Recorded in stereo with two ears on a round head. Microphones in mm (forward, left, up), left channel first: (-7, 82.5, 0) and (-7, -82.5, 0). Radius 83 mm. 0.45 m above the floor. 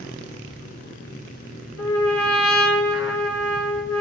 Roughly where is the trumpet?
Left.